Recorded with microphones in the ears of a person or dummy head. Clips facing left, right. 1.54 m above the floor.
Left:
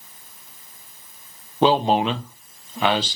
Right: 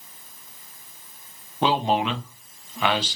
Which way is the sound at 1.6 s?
35° left (ahead or behind).